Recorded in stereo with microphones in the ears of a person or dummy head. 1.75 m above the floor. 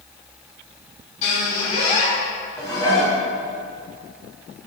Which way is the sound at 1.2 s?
30° left (ahead or behind).